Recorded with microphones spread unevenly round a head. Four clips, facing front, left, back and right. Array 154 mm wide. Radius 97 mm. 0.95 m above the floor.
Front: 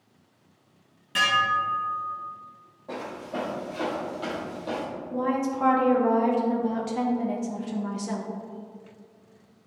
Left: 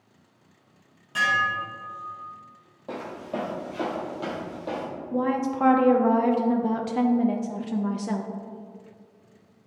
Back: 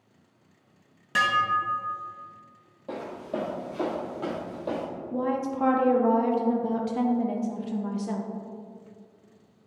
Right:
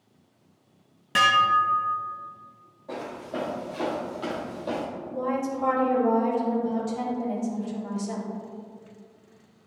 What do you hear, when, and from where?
1.1 s dishes clattering: 110° right, 0.8 m
2.9 s footsteps: 150° left, 1.9 m; by 4.9 s 175° right, 1.7 m
5.1 s a woman speaking: 70° left, 0.7 m